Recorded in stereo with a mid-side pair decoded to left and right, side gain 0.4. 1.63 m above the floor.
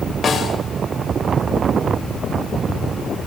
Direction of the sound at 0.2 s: 55° left.